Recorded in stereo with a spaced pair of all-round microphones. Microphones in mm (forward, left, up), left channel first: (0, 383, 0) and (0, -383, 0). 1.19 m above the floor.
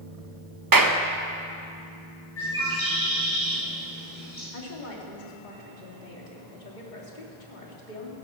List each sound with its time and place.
0.7 s a clap: 30° right (ahead or behind), 0.9 m
2.4 s a bird: 55° left (ahead or behind), 5.5 m
4.5 s a woman speaking: 80° left, 3 m